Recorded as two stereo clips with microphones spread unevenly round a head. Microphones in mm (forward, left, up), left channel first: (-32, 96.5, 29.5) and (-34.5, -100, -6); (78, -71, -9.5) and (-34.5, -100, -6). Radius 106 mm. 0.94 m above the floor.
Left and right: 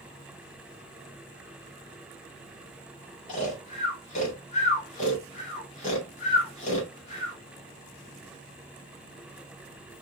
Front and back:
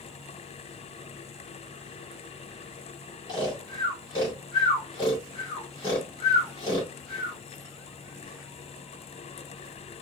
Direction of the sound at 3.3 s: 40° left.